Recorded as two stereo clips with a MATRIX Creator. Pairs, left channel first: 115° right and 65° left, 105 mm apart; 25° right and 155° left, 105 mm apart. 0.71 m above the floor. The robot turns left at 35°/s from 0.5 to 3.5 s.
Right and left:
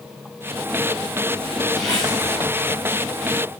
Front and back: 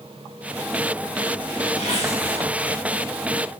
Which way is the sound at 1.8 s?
25° right.